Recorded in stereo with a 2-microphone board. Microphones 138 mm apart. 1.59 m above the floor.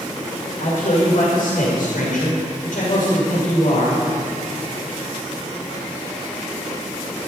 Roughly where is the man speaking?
Left.